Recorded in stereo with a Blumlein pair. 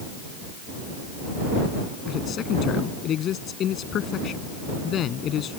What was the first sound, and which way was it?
A man speaking, 30° left.